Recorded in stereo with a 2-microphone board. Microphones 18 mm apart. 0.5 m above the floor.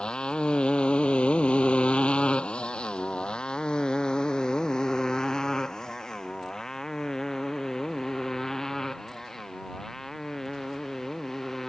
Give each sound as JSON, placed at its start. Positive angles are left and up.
{"t": 0.0, "sound": "a motorcycle", "side_deg": 55}